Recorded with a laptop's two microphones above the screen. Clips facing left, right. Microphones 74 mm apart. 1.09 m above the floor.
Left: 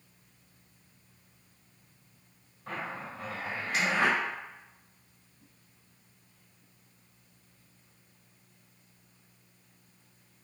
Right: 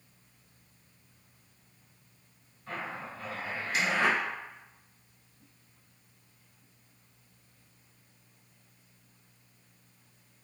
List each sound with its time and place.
2.7 s a zipper: 70° left (ahead or behind), 1.5 m